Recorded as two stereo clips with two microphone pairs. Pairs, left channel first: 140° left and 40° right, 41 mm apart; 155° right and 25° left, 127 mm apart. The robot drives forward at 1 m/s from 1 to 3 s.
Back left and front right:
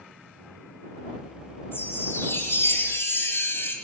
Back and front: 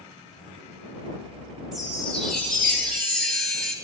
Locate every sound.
1.7 s a chime: 115° left, 5.5 m; by 3.7 s 125° left, 6 m